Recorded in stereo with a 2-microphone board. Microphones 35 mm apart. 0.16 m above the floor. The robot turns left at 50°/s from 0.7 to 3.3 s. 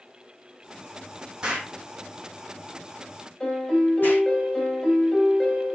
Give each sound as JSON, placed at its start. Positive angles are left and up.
{"t": 1.4, "sound": "an explosion", "side_deg": -25, "distance_m": 2.5}
{"t": 3.4, "sound": "a piano", "side_deg": 30, "distance_m": 4.0}